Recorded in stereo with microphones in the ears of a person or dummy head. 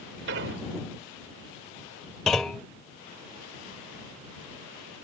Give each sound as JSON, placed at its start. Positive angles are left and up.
{"t": 0.3, "sound": "an explosion", "side_deg": -70}
{"t": 2.3, "sound": "a clunk", "side_deg": 0}